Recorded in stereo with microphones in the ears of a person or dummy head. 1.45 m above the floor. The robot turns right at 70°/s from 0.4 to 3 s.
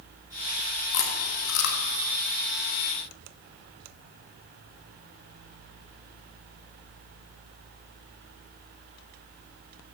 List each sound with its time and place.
0.9 s chewing: 65° left (ahead or behind), 1.0 m; by 1.8 s 50° left (ahead or behind), 1.0 m